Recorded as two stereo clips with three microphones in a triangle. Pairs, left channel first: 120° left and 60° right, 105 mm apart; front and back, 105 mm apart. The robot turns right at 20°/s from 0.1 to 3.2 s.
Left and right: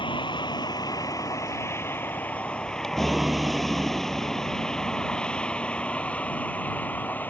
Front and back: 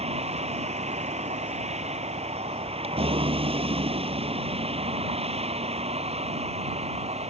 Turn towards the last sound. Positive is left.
turn(degrees=-165)